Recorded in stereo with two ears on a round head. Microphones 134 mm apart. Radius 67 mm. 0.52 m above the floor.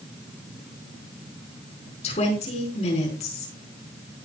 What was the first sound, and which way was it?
A woman speaking, 45° left (ahead or behind).